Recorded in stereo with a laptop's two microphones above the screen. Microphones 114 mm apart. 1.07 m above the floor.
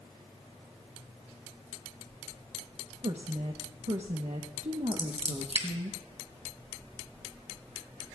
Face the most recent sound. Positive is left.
turn(degrees=-65)  # may be behind; listen again after turning